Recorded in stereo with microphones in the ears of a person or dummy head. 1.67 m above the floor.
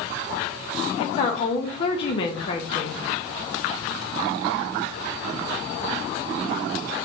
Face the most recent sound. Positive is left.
turn(degrees=35)  # may be behind; listen again after turning